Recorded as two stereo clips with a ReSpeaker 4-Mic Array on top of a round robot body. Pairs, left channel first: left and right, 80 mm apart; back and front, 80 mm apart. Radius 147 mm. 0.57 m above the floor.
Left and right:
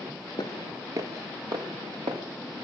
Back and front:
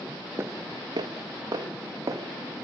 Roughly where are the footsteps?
Ahead left.